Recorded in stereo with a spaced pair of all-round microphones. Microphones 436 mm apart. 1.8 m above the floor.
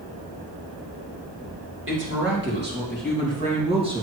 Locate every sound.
1.9 s a woman speaking: 30° right (ahead or behind), 3 m; by 4.0 s 10° right (ahead or behind), 2.5 m